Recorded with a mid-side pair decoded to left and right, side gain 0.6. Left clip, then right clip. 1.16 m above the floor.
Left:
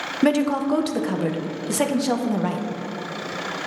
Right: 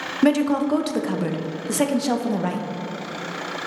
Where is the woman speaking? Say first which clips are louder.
Right 1 dB; straight ahead, 0.6 m.